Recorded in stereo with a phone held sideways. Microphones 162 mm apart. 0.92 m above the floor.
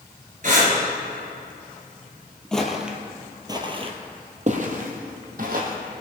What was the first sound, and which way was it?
Breathing, 55° right (ahead or behind).